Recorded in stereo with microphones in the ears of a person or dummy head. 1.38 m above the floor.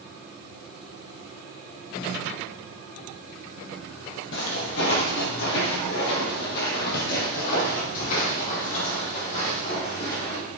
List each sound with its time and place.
4.3 s footsteps: 55° left (ahead or behind), 2.5 m; by 10.4 s 40° left (ahead or behind), 4 m